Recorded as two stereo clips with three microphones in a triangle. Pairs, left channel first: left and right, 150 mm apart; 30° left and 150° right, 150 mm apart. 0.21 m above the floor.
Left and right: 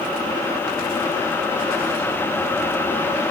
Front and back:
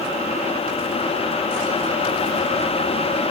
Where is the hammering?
No hammering in this recording.